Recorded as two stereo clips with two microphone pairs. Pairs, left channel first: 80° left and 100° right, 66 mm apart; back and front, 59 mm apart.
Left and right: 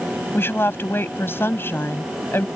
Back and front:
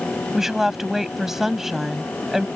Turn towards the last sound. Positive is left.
turn(degrees=80)